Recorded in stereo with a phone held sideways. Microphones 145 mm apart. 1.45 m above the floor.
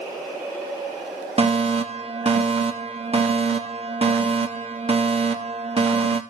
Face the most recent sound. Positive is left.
turn(degrees=-45)  # may be behind; listen again after turning